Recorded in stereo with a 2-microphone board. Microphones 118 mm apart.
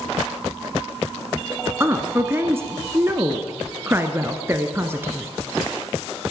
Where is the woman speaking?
20° right (ahead or behind), 1.1 m.